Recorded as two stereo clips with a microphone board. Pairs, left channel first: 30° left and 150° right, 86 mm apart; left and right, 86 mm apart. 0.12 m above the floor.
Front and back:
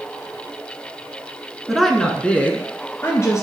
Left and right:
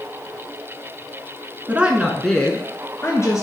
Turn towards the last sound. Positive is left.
turn(degrees=65)